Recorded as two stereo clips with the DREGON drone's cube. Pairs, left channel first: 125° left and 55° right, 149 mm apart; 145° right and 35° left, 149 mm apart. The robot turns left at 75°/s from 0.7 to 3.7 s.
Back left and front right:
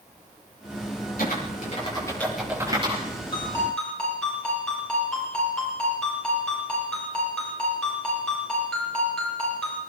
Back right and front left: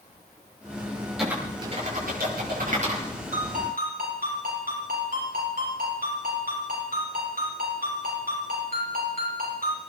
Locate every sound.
1.2 s typing on a keyboard: 120° left, 7 m; by 3.0 s 15° right, 7 m
3.3 s a ringtone: 70° left, 7.5 m; by 9.8 s 40° left, 7.5 m